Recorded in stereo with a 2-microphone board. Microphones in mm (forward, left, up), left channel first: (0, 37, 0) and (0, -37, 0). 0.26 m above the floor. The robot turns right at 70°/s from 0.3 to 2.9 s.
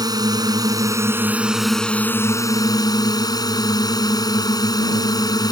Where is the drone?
95° right; by 5.5 s 85° left.